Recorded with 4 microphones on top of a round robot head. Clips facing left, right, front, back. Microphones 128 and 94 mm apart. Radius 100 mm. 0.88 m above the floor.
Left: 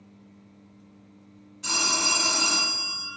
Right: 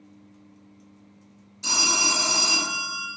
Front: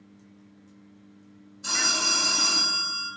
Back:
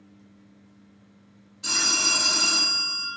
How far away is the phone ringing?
About 0.9 m.